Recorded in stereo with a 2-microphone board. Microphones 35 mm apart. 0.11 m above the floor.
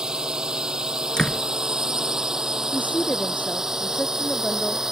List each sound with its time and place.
0.0 s a drone: 20° right (ahead or behind); by 4.9 s 10° right (ahead or behind)
1.2 s a door slam: 25° left (ahead or behind)
2.7 s a woman speaking: 45° left (ahead or behind)